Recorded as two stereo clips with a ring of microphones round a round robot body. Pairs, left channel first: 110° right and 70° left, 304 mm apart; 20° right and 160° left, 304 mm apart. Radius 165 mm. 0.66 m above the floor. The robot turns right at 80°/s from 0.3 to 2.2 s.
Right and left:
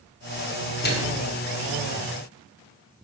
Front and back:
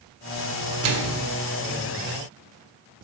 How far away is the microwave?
About 1.8 m.